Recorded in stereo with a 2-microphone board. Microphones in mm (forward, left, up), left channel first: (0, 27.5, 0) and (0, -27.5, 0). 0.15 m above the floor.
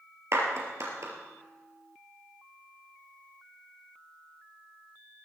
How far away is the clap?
About 3 m.